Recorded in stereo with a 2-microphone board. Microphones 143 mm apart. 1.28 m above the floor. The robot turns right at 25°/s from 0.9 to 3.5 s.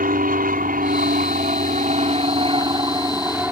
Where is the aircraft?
80° right; by 3.5 s 15° right.